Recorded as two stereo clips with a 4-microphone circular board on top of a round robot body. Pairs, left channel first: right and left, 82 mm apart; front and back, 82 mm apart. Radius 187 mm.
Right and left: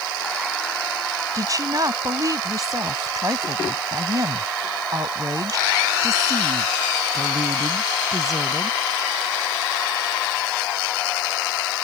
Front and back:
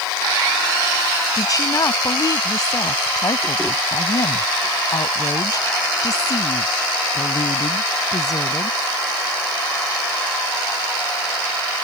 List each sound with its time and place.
1.4 s a woman speaking: 45° left